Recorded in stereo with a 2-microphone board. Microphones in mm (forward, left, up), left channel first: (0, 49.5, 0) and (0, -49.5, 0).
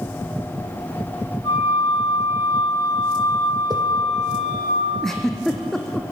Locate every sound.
1.4 s a flute: 45° left (ahead or behind), 9.5 m
3.7 s a whoosh: 45° right (ahead or behind), 2.5 m
5.0 s a giggle: 5° left (ahead or behind), 1.9 m